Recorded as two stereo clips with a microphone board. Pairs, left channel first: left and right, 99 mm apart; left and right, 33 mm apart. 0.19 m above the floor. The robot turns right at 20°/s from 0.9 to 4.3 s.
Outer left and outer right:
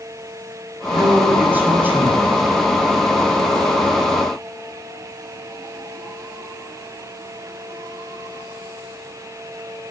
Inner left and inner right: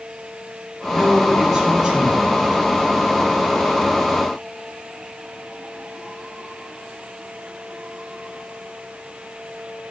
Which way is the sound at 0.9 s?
15° right (ahead or behind).